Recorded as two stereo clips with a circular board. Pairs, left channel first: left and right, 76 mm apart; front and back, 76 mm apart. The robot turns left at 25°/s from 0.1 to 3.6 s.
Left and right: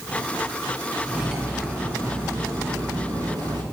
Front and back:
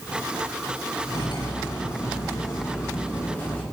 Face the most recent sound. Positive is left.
turn(degrees=-70)